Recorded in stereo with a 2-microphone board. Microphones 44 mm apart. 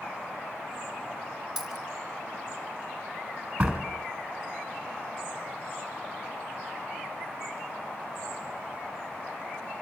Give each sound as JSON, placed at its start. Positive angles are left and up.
{"t": 1.6, "sound": "a dropped coin", "side_deg": 0, "distance_m": 2.5}
{"t": 3.6, "sound": "a door slam", "side_deg": -20, "distance_m": 2.5}